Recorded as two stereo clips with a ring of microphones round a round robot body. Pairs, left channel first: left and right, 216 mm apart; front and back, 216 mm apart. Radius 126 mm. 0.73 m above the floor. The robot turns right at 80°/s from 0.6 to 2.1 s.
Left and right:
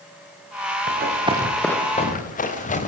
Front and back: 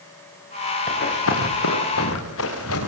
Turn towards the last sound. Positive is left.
turn(degrees=35)